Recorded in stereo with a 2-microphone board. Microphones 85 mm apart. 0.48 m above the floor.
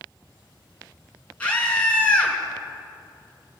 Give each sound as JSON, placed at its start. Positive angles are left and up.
{"t": 1.4, "sound": "a scream", "side_deg": 15, "distance_m": 5.0}